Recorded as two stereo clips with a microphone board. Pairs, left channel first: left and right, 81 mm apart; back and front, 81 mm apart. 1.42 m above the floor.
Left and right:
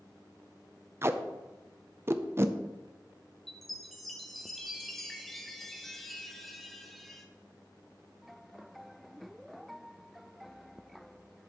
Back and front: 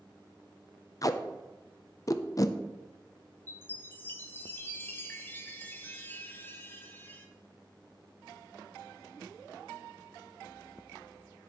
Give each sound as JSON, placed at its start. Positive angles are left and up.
{"t": 1.0, "sound": "tape being pulled", "azimuth_deg": -140, "distance_m": 0.5}
{"t": 3.5, "sound": "a chime", "azimuth_deg": 175, "distance_m": 0.9}